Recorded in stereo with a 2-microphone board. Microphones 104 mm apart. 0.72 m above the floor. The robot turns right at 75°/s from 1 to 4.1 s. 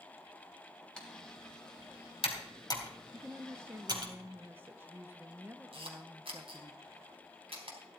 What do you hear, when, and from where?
1.0 s typing on a keyboard: 10° left (ahead or behind), 3 m; by 4.1 s 60° right (ahead or behind), 3 m
3.1 s a woman speaking: 15° right (ahead or behind), 0.7 m; by 6.7 s 20° right (ahead or behind), 0.7 m
5.7 s a camera shutter: 75° right (ahead or behind), 3.5 m